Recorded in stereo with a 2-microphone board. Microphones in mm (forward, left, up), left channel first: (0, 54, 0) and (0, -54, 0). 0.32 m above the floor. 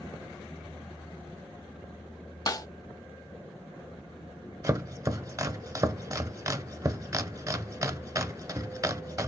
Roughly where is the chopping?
Right.